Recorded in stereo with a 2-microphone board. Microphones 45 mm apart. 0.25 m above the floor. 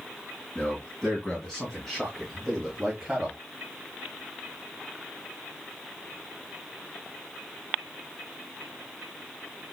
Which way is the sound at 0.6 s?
20° left (ahead or behind).